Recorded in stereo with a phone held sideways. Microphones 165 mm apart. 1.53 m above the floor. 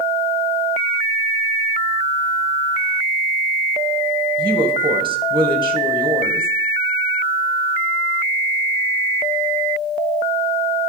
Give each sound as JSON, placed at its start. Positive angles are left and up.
{"t": 4.4, "sound": "a woman speaking", "side_deg": -30, "distance_m": 1.6}